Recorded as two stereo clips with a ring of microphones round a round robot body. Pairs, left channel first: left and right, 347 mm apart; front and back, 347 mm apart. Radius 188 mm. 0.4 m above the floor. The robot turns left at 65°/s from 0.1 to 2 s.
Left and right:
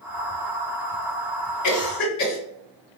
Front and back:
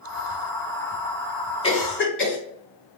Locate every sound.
1.6 s a cough: 70° left, 1.7 m; by 2.4 s 45° left, 1.7 m